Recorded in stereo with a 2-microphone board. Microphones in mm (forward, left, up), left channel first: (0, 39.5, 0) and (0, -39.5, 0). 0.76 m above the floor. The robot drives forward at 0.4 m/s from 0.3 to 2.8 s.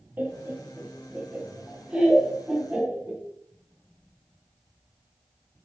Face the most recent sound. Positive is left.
turn(degrees=-10)  # may be behind; listen again after turning